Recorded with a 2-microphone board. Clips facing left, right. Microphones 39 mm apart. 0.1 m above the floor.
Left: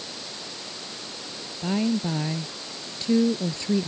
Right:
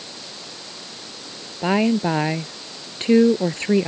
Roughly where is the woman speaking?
Right.